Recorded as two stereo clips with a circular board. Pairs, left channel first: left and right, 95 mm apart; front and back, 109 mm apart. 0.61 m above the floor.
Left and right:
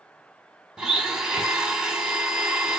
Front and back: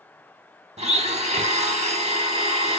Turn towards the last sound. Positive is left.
turn(degrees=-170)